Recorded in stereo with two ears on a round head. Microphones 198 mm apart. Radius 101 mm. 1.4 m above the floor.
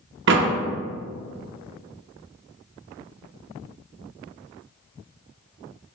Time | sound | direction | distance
0.3 | a door slam | 55° right (ahead or behind) | 0.6 m